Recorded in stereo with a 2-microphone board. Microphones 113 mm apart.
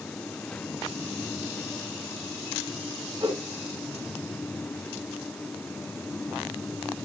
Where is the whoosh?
45° right (ahead or behind), 2.5 m.